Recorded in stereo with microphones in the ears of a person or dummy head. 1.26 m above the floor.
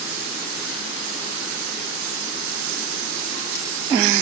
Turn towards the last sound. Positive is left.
No sound to turn to.